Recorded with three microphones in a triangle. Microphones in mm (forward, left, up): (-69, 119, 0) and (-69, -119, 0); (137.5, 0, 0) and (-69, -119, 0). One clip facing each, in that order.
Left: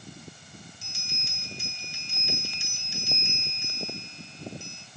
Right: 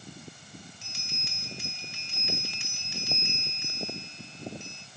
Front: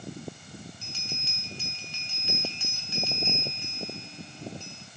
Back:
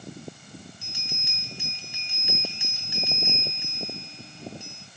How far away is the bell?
About 3 m.